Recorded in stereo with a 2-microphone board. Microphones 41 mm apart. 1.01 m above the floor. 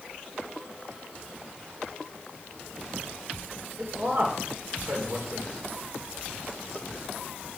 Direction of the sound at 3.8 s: 80° right.